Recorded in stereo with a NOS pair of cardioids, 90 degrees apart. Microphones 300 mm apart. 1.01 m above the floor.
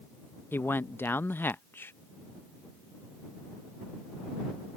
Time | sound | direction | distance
0.5 | a man speaking | 5° left | ?